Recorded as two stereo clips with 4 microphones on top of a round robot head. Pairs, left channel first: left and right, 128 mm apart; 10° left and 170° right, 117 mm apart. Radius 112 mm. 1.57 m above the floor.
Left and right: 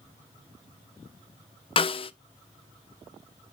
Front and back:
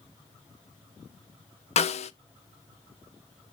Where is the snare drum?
40° left, 0.7 m.